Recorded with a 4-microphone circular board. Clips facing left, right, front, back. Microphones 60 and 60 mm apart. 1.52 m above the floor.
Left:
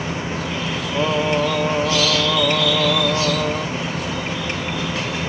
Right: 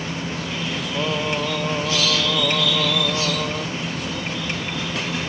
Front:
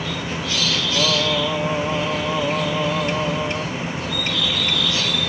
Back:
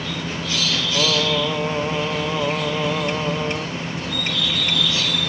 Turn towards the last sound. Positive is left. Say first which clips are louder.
# left 6 dB, even
turn(degrees=125)